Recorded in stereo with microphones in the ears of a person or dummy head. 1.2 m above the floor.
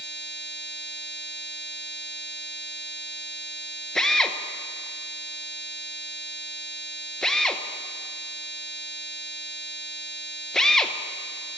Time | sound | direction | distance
4.0 | a drill | 5° left (ahead or behind) | 0.6 m